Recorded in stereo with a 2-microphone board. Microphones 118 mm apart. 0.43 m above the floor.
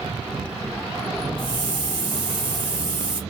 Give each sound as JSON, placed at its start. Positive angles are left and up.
{"t": 1.4, "sound": "a hiss", "side_deg": -45, "distance_m": 2.0}